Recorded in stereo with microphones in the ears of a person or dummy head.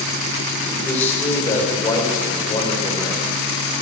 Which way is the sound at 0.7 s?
15° left (ahead or behind).